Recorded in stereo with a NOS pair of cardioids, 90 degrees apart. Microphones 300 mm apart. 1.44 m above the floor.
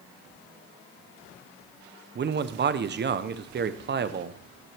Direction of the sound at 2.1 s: 40° right.